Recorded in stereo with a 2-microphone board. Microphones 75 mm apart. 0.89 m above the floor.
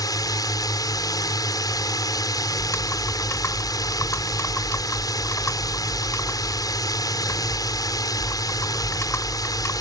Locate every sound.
0.0 s a drone: 65° left (ahead or behind)
2.6 s typing on a keyboard: 45° left (ahead or behind)